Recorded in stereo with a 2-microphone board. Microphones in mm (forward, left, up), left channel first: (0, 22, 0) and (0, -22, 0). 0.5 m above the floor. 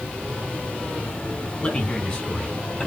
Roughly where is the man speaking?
Left.